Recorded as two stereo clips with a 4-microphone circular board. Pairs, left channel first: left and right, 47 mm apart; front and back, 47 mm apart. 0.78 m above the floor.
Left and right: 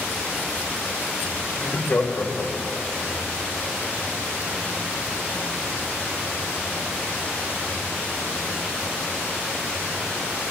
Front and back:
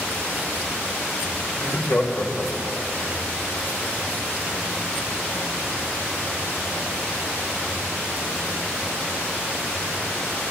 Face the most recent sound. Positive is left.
turn(degrees=60)